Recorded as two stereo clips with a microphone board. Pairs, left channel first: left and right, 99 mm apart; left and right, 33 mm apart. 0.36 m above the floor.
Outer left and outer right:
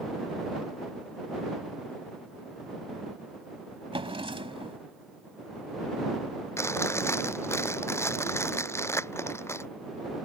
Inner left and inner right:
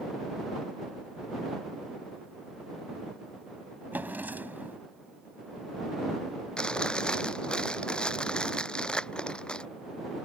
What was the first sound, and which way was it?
A drawer, 65° right (ahead or behind).